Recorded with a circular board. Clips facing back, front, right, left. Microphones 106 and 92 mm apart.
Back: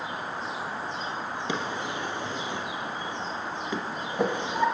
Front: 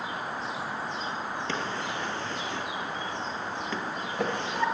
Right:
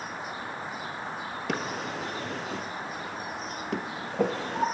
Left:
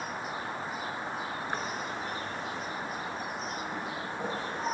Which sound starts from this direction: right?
A drawer, at 1.5 s.